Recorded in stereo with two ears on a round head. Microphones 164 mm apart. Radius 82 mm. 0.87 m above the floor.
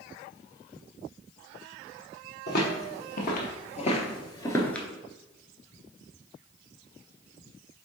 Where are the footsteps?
60° left (ahead or behind), 1.6 m; by 4.9 s 5° left (ahead or behind), 0.8 m.